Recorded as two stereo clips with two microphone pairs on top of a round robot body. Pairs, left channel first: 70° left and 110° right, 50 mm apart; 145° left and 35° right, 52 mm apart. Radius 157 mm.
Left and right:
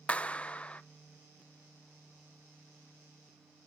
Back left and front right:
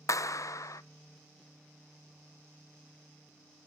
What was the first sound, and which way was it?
A clap, 135° left.